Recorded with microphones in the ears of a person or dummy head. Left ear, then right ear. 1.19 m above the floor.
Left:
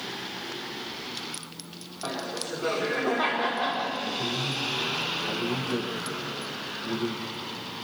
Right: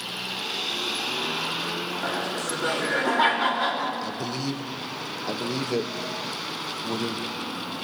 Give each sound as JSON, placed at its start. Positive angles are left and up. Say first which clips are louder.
{"t": 2.0, "sound": "laughter", "louder": "right 1 dB", "side_deg": -50, "distance_m": 4.0}
{"t": 4.0, "sound": "a man speaking", "louder": "left 1 dB", "side_deg": -70, "distance_m": 0.9}